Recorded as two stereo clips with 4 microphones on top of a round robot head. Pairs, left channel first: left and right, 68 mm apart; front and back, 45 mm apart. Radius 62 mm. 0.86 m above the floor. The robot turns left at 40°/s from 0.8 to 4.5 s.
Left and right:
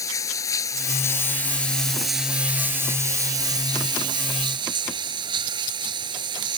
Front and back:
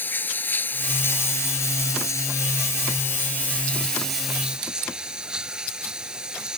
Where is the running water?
50° left; by 6.6 s 100° right.